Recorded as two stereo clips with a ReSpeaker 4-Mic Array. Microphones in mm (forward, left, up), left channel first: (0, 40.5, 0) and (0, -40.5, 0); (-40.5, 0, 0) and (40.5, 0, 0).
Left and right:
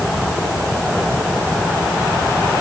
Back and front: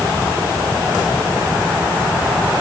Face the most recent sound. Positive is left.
No sound to turn to.